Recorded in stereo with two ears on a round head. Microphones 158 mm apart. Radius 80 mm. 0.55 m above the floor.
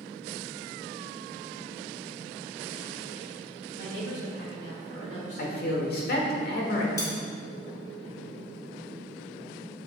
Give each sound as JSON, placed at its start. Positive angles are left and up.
{"t": 3.8, "sound": "a woman speaking", "side_deg": 60, "distance_m": 3.0}
{"t": 5.4, "sound": "a man speaking", "side_deg": 60, "distance_m": 1.6}
{"t": 7.0, "sound": "cutlery clinking", "side_deg": 20, "distance_m": 2.0}